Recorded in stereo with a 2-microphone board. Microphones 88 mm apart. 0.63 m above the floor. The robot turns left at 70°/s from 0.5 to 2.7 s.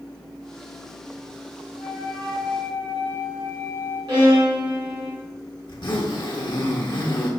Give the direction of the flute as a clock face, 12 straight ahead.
8 o'clock.